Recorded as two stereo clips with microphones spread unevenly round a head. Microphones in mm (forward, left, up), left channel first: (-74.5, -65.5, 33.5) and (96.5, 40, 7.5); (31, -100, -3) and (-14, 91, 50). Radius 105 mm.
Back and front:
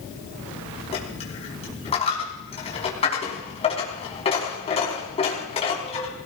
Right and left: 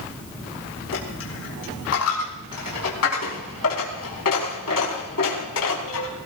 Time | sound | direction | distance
0.9 | a dropped coin | 90° right | 5 m